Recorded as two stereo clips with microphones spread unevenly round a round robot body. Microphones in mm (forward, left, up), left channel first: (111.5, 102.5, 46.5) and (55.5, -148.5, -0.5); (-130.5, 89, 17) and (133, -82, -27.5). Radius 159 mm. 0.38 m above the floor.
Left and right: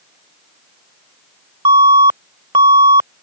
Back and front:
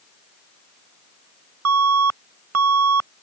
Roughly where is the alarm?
Ahead right.